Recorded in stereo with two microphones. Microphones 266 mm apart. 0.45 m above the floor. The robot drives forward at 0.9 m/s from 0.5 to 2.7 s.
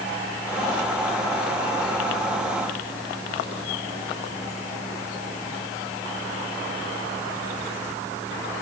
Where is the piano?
I don't hear a piano.